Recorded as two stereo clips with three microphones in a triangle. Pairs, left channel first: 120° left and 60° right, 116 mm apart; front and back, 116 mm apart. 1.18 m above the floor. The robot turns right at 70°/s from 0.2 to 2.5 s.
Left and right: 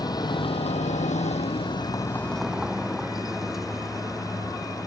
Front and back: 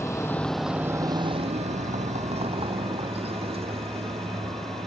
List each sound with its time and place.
0.0 s a vehicle: 65° left; by 4.9 s 150° right